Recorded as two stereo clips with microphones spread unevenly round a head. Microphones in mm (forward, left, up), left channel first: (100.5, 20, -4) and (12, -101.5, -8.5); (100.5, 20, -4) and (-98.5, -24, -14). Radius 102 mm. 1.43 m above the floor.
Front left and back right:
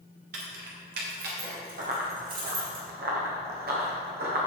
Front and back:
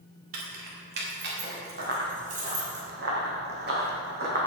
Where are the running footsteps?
130° right, 2.5 m.